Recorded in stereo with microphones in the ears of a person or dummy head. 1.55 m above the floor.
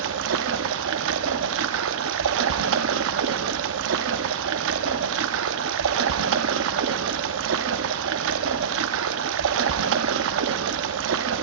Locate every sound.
0.0 s running water: 75° right (ahead or behind), 0.7 m